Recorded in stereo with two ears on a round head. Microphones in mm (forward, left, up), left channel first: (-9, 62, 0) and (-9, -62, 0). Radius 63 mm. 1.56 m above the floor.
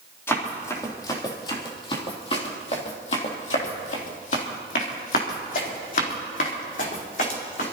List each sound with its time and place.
0.3 s running footsteps: 20° left (ahead or behind), 3.5 m; by 7.7 s 65° left (ahead or behind), 5 m